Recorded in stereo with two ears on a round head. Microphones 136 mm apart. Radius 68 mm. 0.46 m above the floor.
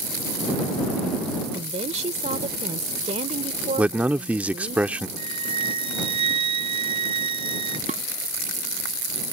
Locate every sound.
1.5 s a woman speaking: 45° right (ahead or behind)
3.8 s a man speaking: 10° right (ahead or behind)
5.2 s a flute: 35° right (ahead or behind)
7.9 s dishes clattering: 50° right (ahead or behind)